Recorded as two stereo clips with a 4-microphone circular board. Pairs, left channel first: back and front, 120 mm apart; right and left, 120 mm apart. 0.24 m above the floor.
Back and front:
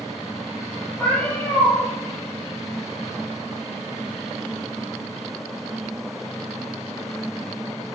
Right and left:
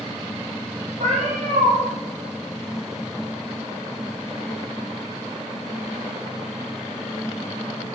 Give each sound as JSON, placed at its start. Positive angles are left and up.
{"t": 1.0, "sound": "a cat meowing", "azimuth_deg": 100, "distance_m": 3.5}